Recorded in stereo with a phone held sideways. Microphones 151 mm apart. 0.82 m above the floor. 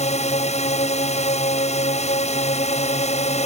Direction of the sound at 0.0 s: 45° left (ahead or behind).